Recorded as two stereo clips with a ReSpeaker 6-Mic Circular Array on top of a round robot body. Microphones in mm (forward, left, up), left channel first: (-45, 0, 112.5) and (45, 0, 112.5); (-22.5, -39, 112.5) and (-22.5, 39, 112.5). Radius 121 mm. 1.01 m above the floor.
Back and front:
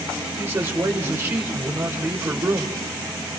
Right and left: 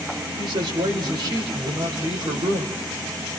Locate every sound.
0.4 s a man speaking: 65° left, 5.5 m